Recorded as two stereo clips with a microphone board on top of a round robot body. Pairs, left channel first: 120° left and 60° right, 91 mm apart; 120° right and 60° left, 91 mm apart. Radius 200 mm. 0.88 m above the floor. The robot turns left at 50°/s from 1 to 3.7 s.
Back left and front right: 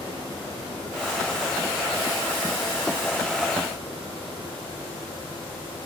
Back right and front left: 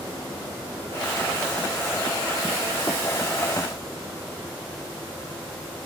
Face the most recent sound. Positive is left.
No sound to turn to.